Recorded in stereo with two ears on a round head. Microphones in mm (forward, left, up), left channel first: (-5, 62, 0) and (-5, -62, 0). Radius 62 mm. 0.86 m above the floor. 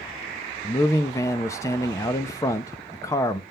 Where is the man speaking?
20° left (ahead or behind), 0.7 m.